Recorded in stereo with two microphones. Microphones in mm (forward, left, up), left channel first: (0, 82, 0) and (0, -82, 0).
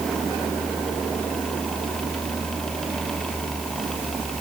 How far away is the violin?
No violin in this recording.